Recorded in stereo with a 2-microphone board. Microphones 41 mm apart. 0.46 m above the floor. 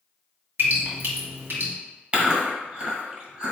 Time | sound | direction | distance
0.6 | dripping | 70° right (ahead or behind) | 2.0 m
2.1 | chewing | 30° right (ahead or behind) | 1.6 m